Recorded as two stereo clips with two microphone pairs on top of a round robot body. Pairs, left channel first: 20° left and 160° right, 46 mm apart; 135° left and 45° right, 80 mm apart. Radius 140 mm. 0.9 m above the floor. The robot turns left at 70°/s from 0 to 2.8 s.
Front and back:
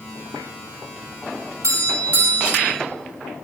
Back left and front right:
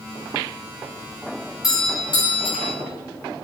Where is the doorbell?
175° right, 4 m; by 2.7 s 110° left, 4 m.